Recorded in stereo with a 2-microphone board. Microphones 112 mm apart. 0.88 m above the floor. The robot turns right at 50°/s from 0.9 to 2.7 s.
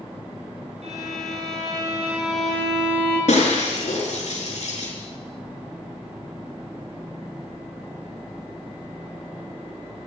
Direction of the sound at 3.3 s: 85° left.